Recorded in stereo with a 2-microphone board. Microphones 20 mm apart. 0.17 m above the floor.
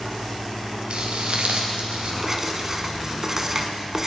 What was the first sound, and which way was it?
Footsteps, 55° right (ahead or behind).